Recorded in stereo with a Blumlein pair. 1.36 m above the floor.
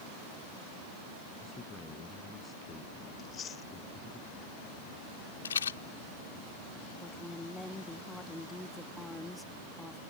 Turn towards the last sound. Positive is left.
turn(degrees=5)